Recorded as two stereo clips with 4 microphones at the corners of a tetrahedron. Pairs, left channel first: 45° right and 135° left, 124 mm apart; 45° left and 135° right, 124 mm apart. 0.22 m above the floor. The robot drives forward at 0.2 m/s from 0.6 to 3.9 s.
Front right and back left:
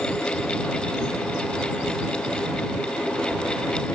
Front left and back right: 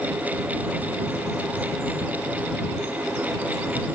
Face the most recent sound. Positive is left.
No sound to turn to.